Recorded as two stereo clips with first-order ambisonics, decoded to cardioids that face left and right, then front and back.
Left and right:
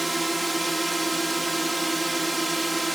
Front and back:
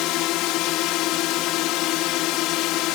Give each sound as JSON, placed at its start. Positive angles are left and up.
{"t": 0.0, "sound": "a drone", "azimuth_deg": -5}